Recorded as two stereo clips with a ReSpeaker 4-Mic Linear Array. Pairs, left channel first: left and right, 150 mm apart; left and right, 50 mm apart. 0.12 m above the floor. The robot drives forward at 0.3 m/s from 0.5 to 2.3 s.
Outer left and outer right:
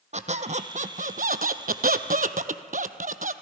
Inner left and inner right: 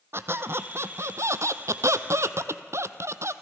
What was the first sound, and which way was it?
A squeak, 55° right (ahead or behind).